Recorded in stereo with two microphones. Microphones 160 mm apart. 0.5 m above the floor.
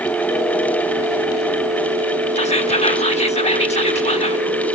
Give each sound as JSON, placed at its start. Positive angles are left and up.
{"t": 2.4, "sound": "whispering", "side_deg": 40, "distance_m": 1.3}